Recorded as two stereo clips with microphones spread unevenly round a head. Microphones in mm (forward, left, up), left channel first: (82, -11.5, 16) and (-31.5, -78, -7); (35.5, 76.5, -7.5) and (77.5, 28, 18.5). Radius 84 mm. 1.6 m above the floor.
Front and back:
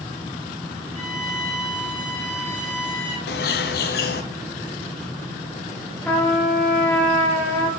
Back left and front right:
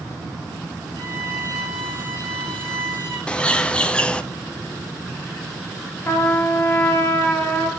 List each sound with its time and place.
0.9 s a violin: 115° right, 1.9 m
3.3 s a bird: 55° left, 0.5 m
6.0 s a trumpet: 70° left, 1.3 m